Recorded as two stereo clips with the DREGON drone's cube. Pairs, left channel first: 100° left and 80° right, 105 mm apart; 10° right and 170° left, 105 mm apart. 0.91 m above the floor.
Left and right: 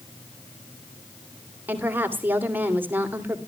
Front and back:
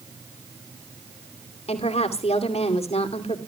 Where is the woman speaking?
10° right, 2.5 m.